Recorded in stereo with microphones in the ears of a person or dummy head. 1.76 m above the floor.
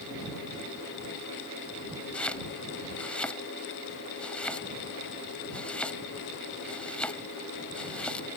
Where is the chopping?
10° left (ahead or behind).